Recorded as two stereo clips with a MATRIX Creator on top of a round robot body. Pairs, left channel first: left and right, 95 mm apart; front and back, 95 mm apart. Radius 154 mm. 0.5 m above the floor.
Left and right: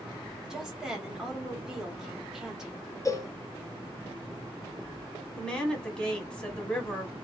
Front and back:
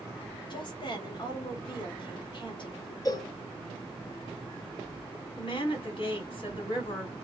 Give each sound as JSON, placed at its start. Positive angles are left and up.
{"t": 0.5, "sound": "a woman speaking", "azimuth_deg": -5, "distance_m": 1.4}
{"t": 3.0, "sound": "a cowbell", "azimuth_deg": 40, "distance_m": 0.6}
{"t": 5.4, "sound": "a woman speaking", "azimuth_deg": 10, "distance_m": 1.6}